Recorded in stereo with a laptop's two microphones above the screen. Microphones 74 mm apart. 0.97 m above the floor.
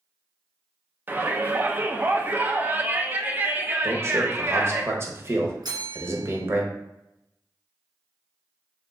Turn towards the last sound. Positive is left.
turn(degrees=-70)  # may be behind; listen again after turning